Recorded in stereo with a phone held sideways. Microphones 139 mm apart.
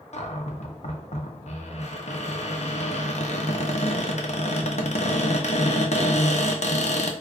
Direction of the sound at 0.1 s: 60° left (ahead or behind).